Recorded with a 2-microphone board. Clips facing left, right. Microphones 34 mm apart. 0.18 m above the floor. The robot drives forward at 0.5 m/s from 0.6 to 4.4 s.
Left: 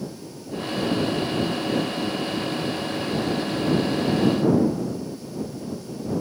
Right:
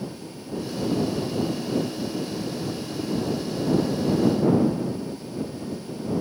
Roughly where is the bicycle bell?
No bicycle bell in this recording.